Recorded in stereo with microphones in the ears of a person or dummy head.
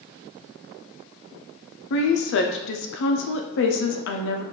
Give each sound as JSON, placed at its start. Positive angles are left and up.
{"t": 1.9, "sound": "a woman speaking", "side_deg": 60, "distance_m": 0.6}